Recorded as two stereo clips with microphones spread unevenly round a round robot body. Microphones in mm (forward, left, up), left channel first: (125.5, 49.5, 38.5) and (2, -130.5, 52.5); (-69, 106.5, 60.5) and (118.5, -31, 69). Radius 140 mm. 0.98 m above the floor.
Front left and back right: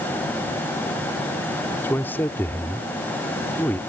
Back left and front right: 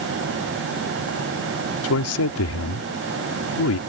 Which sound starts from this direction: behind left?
A man speaking, at 1.8 s.